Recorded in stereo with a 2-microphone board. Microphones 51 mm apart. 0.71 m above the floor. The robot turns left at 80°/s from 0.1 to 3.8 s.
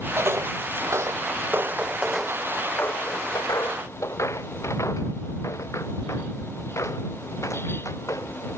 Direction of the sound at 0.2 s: 55° right (ahead or behind).